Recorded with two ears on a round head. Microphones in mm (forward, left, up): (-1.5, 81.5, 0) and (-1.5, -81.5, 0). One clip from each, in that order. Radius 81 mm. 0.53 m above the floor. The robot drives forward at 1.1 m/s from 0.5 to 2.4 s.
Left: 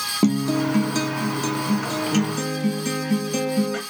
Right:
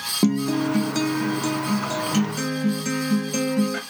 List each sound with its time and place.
0.2 s a guitar: 5° left (ahead or behind), 0.5 m; by 3.8 s centre (ahead or behind), 1.9 m